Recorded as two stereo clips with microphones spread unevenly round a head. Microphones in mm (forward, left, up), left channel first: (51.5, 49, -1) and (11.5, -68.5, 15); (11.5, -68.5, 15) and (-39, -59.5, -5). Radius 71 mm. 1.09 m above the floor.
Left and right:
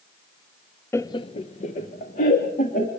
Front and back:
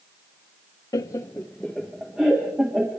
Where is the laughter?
10° left, 0.7 m; by 2.9 s 105° left, 2.5 m.